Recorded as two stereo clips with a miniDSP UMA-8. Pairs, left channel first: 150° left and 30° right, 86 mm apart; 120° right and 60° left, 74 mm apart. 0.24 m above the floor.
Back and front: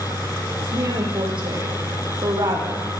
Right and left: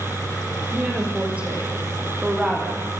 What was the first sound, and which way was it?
A woman speaking, 10° right.